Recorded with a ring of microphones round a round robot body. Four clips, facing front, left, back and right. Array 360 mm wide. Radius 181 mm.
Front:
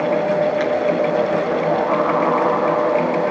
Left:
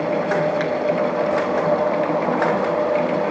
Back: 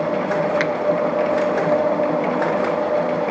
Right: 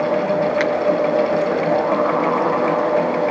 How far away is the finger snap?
About 1.6 m.